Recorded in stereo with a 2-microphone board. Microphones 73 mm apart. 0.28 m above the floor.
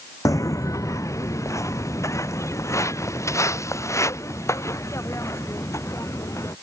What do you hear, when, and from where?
0.2 s footsteps: 50° left (ahead or behind); by 6.5 s 40° left (ahead or behind)